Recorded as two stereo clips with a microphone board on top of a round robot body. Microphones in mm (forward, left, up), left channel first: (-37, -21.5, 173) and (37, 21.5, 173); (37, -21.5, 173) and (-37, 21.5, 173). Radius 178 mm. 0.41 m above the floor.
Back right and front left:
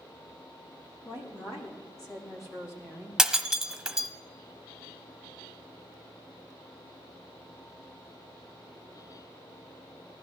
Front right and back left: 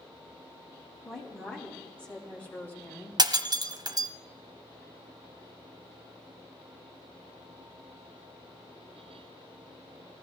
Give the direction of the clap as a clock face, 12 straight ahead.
I don't hear a clap.